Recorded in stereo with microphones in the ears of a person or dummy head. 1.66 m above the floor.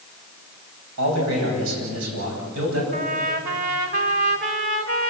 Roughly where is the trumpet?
Right.